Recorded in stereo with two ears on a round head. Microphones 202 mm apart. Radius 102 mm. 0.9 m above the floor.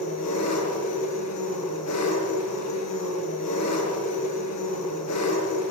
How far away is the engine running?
About 7.5 m.